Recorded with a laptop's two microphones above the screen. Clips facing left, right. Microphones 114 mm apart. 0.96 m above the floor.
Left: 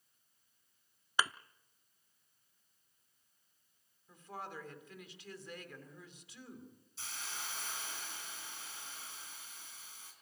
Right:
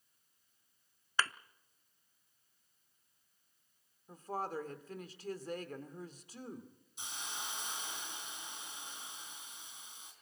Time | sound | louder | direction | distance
1.2 | a thud | left 1 dB | 15° left (ahead or behind) | 0.6 m
4.1 | a woman speaking | right 7 dB | 40° right (ahead or behind) | 3 m
7.0 | a hiss | right 2 dB | 20° right (ahead or behind) | 3.5 m